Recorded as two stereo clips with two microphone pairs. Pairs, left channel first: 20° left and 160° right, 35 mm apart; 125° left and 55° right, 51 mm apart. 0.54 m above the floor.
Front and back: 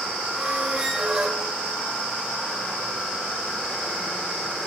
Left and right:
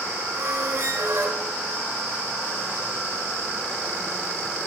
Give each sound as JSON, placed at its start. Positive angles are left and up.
{"t": 0.3, "sound": "a squeak", "azimuth_deg": -90, "distance_m": 0.9}